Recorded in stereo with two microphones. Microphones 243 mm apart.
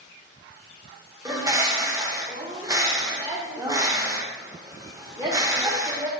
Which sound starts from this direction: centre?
A bird, at 1.2 s.